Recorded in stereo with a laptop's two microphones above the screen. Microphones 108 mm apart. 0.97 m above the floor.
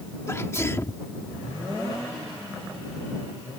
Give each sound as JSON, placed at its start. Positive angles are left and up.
{"t": 0.3, "sound": "a sneeze", "side_deg": 25}